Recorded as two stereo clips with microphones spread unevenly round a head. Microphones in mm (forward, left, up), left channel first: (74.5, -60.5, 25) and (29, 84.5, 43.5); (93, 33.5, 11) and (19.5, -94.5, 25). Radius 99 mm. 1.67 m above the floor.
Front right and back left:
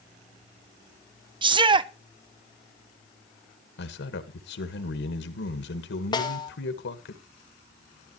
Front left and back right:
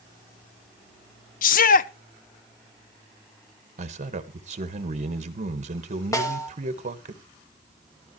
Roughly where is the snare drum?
Ahead.